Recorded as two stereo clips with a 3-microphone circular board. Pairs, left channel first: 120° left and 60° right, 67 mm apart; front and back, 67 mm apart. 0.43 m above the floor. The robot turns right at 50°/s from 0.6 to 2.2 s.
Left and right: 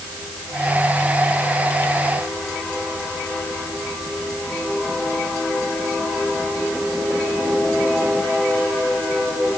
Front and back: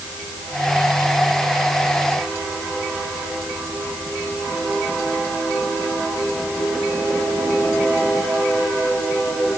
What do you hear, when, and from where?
Only background noise.